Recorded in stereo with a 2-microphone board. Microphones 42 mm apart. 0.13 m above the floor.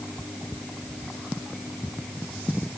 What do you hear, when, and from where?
Only background noise.